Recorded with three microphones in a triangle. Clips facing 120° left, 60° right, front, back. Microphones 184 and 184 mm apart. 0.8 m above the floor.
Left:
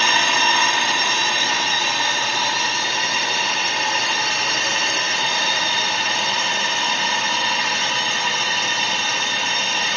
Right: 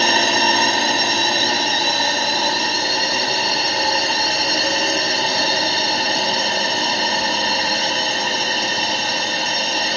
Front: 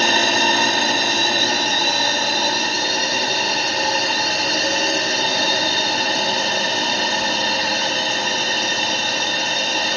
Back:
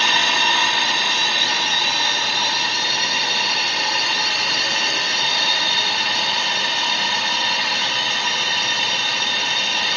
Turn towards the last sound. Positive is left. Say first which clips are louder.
# right 4 dB, front 5 dB
turn(degrees=-25)